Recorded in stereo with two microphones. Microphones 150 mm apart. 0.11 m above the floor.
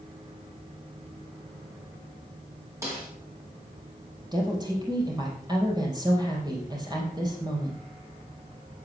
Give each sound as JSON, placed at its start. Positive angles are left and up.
{"t": 2.8, "sound": "a snare drum", "side_deg": -20, "distance_m": 4.0}
{"t": 4.3, "sound": "a woman speaking", "side_deg": -25, "distance_m": 3.5}